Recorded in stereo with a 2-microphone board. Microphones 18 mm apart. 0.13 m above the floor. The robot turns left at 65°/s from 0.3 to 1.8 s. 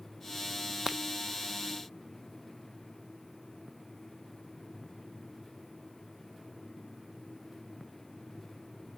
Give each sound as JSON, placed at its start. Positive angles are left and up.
{"t": 0.9, "sound": "breaking glass", "side_deg": -30}